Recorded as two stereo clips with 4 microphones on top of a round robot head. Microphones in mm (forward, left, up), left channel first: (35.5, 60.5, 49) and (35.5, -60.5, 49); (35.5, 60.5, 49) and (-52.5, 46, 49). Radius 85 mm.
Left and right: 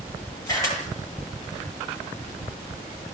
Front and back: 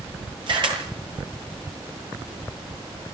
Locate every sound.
0.5 s a camera shutter: 160° left, 8.5 m